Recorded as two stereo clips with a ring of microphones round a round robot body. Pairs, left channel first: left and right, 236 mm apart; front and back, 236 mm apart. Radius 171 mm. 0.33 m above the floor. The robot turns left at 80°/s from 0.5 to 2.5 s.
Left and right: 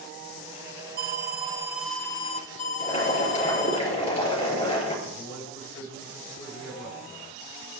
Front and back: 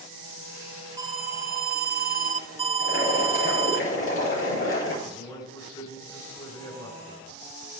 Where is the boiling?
25° left, 6 m.